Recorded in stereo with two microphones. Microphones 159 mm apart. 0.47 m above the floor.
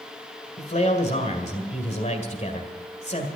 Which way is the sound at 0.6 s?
45° left (ahead or behind).